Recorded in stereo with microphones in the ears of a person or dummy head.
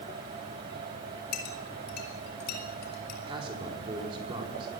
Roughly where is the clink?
Left.